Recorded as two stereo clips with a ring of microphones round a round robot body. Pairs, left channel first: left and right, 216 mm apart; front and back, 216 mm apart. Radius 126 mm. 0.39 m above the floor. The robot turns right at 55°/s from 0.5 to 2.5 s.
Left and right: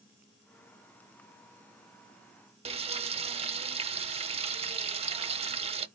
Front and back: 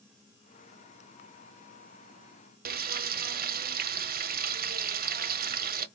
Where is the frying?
145° right, 0.6 m.